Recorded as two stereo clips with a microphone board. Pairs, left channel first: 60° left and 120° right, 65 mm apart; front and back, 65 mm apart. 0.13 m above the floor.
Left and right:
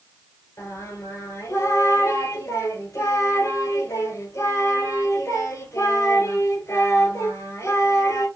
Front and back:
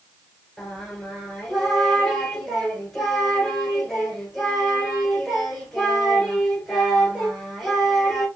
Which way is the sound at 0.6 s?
85° left.